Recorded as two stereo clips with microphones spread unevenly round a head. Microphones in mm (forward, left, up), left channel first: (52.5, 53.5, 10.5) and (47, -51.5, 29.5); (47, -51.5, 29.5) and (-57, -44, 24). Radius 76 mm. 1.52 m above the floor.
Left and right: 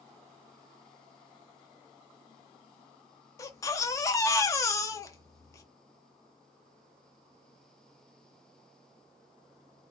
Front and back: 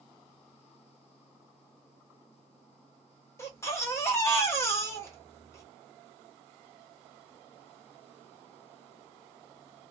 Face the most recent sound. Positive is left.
turn(degrees=40)